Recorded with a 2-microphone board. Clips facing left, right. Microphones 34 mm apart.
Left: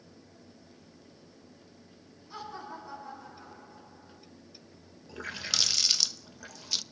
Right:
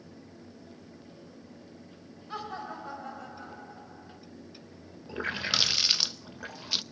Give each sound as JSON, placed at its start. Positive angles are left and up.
{"t": 2.3, "sound": "laughter", "side_deg": -55, "distance_m": 5.5}
{"t": 5.1, "sound": "a running tap", "side_deg": -25, "distance_m": 0.5}